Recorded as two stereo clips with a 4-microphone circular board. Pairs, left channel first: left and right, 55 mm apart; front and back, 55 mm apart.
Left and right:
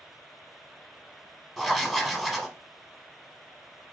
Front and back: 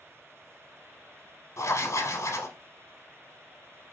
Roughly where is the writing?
Ahead.